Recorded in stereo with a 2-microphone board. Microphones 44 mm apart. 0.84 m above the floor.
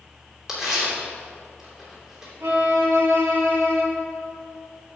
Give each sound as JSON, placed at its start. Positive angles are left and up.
{"t": 0.5, "sound": "tearing paper", "side_deg": -15, "distance_m": 3.0}
{"t": 2.4, "sound": "a violin", "side_deg": -80, "distance_m": 1.3}